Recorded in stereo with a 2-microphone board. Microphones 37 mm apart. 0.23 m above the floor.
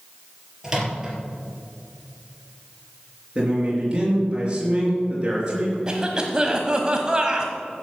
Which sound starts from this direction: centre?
A microwave, at 0.6 s.